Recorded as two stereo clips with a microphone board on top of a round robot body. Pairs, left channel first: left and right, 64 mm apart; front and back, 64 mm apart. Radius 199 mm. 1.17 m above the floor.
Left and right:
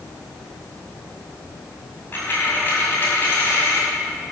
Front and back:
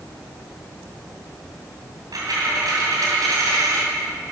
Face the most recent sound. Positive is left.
turn(degrees=150)